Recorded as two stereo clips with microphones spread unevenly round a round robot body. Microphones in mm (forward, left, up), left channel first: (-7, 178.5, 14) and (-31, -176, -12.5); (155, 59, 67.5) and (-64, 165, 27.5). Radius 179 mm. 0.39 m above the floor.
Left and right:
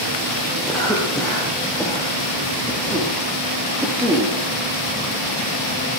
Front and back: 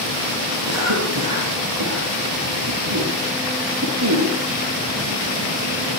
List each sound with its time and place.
0.7 s a cough: 175° left, 8.5 m